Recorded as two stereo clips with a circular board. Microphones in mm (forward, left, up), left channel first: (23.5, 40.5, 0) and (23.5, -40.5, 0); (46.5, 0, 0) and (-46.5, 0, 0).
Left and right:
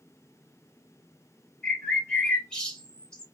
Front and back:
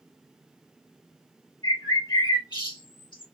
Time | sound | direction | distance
1.6 | a bird | 10° left | 1.8 m